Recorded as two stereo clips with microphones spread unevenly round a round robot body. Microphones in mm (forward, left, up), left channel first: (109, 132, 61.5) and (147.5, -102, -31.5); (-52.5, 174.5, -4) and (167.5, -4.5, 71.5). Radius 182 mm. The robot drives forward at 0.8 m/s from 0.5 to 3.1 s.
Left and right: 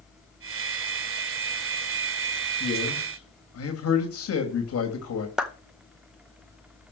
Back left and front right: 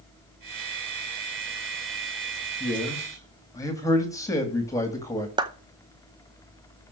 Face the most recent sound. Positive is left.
turn(degrees=-125)